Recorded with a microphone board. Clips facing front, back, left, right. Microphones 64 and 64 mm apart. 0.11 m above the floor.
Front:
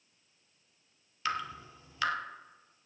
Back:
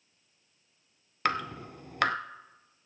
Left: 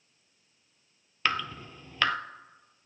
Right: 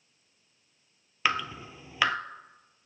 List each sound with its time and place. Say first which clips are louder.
1.2 s dripping: back 4 dB, right 1 dB; 170° right, 0.5 m